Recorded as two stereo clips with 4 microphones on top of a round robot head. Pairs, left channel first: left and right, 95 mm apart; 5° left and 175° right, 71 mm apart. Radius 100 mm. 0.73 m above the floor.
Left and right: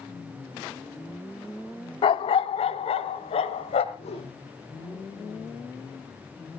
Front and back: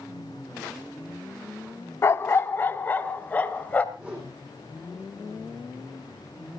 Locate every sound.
2.0 s a dog barking: 60° left, 0.5 m; by 3.9 s 75° left, 1.7 m
4.0 s a whoosh: 110° left, 7 m